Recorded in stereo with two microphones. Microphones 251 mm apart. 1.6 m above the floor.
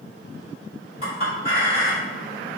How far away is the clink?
About 1.7 m.